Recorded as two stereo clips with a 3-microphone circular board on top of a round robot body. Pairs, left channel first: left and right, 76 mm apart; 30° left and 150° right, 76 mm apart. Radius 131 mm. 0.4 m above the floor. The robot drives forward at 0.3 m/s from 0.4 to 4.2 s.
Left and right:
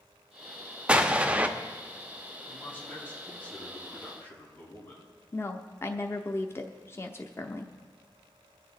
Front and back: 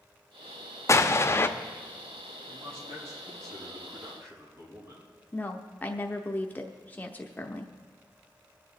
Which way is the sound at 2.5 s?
155° left.